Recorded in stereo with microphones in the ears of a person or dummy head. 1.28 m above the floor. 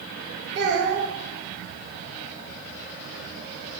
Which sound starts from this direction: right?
A child speaking, at 0.6 s.